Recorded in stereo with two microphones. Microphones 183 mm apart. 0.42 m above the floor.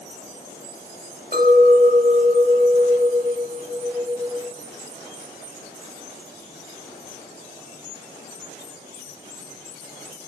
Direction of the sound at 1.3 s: 50° right (ahead or behind).